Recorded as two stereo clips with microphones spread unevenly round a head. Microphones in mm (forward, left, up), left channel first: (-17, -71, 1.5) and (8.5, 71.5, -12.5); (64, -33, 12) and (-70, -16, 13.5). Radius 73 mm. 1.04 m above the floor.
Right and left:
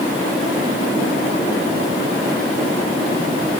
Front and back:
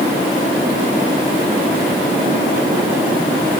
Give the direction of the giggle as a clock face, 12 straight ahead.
No giggle in this recording.